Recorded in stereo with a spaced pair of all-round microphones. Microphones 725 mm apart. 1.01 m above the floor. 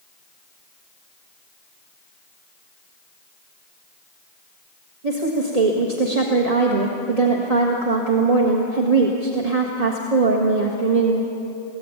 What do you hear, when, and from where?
5.0 s a woman speaking: 60° right (ahead or behind), 1.7 m